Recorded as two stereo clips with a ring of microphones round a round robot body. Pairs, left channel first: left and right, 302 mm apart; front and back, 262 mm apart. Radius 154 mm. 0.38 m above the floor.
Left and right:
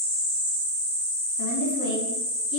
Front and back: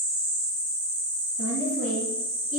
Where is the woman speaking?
115° left, 4 m; by 2.6 s 125° left, 4 m.